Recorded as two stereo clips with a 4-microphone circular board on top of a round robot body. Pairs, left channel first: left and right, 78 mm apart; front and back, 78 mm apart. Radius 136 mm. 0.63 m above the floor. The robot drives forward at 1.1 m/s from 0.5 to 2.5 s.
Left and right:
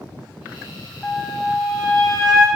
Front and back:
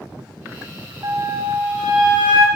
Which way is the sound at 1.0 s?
175° left.